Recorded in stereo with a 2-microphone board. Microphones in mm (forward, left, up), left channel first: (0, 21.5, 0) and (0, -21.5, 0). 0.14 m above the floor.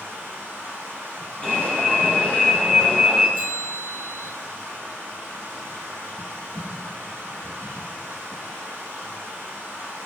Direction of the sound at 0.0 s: 75° right (ahead or behind).